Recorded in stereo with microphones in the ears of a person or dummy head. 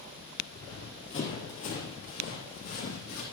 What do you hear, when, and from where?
0.5 s running footsteps: 30° left (ahead or behind), 3 m; by 3.2 s 50° left (ahead or behind), 4 m